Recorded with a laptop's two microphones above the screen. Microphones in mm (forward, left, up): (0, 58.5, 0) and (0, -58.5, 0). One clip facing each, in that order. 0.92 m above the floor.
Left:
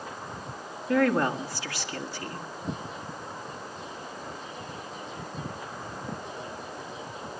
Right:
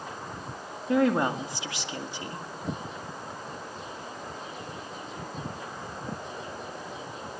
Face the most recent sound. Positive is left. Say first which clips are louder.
# even
turn(degrees=-20)  # may be behind; listen again after turning